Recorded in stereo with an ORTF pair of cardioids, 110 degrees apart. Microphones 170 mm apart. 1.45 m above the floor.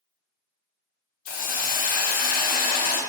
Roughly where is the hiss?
Ahead left.